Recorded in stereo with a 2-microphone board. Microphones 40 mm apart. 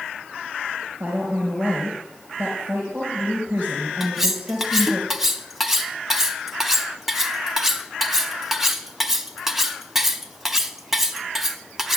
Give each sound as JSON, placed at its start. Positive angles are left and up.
{"t": 1.0, "sound": "a woman speaking", "side_deg": -45, "distance_m": 4.0}
{"t": 4.0, "sound": "cutlery clinking", "side_deg": -5, "distance_m": 0.7}